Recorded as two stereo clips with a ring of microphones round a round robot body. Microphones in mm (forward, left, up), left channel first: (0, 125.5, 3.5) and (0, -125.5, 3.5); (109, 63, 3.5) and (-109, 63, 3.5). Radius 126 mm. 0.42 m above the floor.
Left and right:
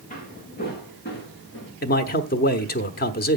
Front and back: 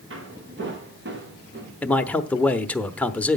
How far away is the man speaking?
About 0.9 m.